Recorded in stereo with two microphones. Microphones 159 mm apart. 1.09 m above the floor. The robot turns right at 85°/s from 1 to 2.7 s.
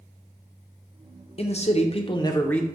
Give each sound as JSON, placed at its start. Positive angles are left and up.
{"t": 1.4, "sound": "a man speaking", "azimuth_deg": 65, "distance_m": 0.6}